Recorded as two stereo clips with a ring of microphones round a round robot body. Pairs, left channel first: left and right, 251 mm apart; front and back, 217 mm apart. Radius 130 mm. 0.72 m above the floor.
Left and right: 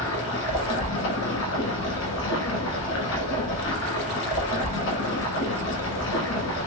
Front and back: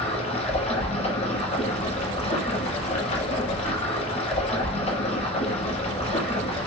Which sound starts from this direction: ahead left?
Running water, at 0.0 s.